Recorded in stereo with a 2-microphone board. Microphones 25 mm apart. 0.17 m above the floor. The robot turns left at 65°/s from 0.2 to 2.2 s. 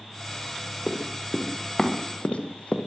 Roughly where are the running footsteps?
Right.